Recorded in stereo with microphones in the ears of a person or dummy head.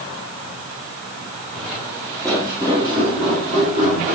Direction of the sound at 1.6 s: Centre (ahead or behind).